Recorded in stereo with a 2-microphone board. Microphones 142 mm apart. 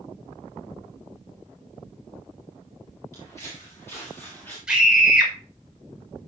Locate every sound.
3.1 s footsteps: 20° left (ahead or behind), 8 m; by 4.6 s 10° left (ahead or behind), 7.5 m
4.7 s a scream: 5° right (ahead or behind), 6 m